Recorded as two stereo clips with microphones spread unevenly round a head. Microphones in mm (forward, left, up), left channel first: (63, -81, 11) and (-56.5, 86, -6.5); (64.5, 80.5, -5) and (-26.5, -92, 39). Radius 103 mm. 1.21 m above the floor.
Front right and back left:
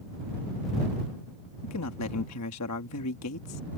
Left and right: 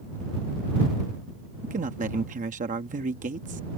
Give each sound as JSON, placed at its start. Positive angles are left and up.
{"t": 1.6, "sound": "a man speaking", "azimuth_deg": -65}